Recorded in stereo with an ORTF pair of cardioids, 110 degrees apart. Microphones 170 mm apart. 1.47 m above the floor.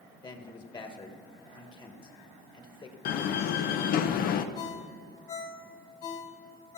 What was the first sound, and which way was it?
A man speaking, 25° left.